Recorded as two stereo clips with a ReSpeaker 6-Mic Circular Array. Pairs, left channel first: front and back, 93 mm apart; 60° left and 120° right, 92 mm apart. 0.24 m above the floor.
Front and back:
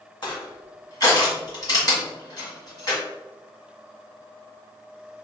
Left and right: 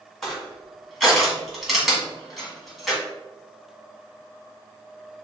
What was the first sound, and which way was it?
Crushing, 30° right.